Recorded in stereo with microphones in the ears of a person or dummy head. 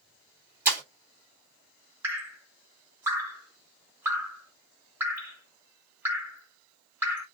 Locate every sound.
0.7 s breaking glass: 15° right (ahead or behind), 1.9 m
2.0 s dripping: 10° right (ahead or behind), 1.0 m